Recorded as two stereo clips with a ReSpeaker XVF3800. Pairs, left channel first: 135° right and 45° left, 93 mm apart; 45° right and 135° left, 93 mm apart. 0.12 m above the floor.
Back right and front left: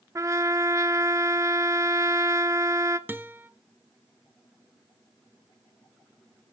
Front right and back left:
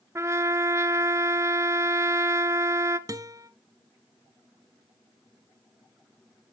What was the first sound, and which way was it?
A trumpet, 85° left.